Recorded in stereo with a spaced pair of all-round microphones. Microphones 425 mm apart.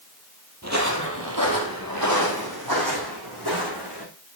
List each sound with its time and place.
0.6 s footsteps: 35° right (ahead or behind), 2.5 m; by 4.0 s 65° right (ahead or behind), 6 m